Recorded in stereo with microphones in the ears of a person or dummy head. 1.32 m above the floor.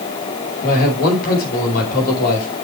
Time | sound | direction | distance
0.6 | a man speaking | 50° left (ahead or behind) | 5 m